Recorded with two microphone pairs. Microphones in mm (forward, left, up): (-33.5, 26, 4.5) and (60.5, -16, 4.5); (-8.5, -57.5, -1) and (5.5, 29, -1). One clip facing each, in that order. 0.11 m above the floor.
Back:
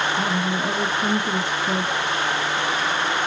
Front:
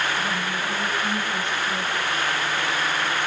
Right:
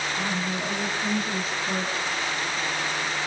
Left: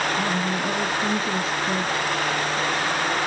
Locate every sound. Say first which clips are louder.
0.2 s a woman speaking: back 4 dB, left 4 dB; 145° left, 3.5 m